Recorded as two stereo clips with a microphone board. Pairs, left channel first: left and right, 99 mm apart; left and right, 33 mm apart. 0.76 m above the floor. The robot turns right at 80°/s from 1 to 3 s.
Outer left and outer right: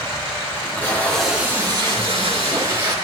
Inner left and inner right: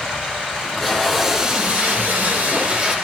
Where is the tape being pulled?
160° left, 3 m; by 3.0 s 40° right, 3 m.